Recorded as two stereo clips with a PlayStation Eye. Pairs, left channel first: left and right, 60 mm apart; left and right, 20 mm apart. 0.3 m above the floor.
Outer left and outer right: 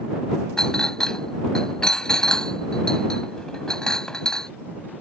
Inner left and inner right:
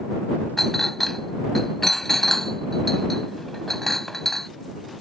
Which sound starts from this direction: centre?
A clink, at 0.6 s.